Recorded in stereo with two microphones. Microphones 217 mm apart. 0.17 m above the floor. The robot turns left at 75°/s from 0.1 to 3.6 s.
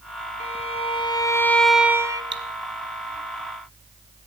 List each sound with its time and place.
0.4 s a violin: 95° left, 1.3 m; by 2.2 s 40° right, 1.3 m
2.3 s cutlery clinking: 60° right (ahead or behind), 1.7 m; by 2.4 s 55° right (ahead or behind), 1.7 m